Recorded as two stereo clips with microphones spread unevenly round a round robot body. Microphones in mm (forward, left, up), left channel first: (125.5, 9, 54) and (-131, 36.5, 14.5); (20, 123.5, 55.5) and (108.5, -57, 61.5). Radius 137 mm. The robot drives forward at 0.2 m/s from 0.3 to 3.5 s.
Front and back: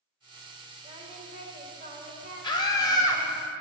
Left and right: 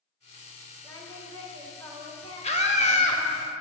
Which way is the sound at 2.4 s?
70° left.